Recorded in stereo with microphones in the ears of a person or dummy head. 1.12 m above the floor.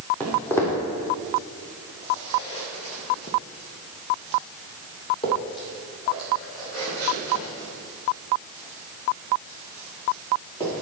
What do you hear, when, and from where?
0.2 s footsteps: 5° left (ahead or behind), 2.5 m; by 10.8 s 15° left (ahead or behind), 6 m